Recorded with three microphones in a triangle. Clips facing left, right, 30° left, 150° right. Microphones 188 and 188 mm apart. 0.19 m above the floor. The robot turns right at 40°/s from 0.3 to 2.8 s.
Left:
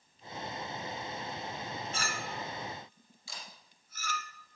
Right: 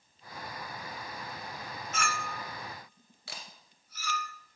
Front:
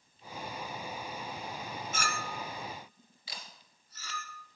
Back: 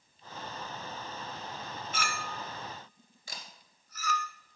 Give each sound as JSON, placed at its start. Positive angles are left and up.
{"t": 1.9, "sound": "a clink", "azimuth_deg": 45, "distance_m": 0.9}
{"t": 3.3, "sound": "a camera shutter", "azimuth_deg": -110, "distance_m": 2.0}